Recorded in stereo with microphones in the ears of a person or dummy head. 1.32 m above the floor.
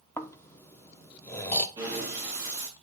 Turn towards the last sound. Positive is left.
turn(degrees=-15)  # may be behind; listen again after turning